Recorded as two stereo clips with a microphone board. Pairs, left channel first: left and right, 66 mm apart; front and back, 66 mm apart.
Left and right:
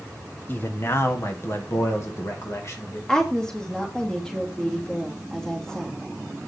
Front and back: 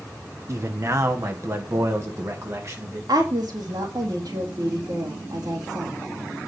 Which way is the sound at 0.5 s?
145° left.